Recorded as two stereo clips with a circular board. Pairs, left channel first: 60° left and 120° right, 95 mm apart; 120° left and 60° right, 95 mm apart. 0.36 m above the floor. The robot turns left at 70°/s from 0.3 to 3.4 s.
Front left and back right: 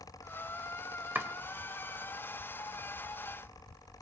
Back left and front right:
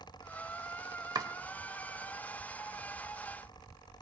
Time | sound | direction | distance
1.1 | chopping | 60° right | 1.2 m